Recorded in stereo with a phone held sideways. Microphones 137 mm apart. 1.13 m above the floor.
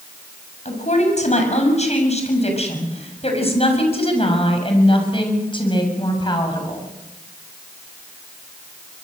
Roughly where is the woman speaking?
Left.